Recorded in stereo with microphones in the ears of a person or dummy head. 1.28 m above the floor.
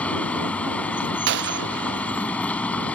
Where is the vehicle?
15° left (ahead or behind).